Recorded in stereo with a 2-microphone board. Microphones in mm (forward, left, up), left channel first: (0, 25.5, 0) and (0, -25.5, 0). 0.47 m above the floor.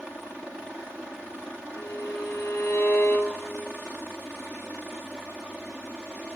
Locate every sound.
1.8 s a violin: 50° left (ahead or behind), 3 m